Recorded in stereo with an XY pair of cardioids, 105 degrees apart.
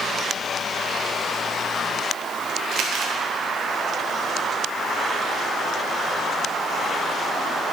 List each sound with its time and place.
2.7 s crumpling: 70° right, 1.5 m